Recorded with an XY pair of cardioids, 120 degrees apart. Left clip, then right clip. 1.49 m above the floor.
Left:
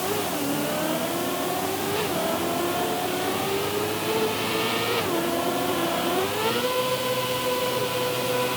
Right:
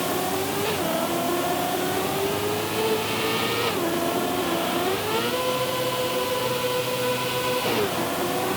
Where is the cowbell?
No cowbell in this recording.